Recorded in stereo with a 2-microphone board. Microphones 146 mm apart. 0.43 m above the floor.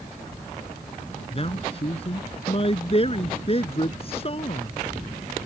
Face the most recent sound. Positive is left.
turn(degrees=40)  # may be behind; listen again after turning